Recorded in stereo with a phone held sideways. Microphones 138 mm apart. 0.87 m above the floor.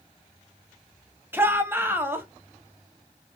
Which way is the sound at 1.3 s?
15° right (ahead or behind).